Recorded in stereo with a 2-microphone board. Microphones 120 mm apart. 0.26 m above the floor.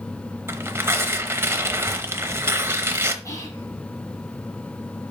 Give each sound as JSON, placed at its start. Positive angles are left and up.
{"t": 0.5, "sound": "tearing paper", "side_deg": -20, "distance_m": 0.8}
{"t": 3.2, "sound": "whispering", "side_deg": 25, "distance_m": 3.0}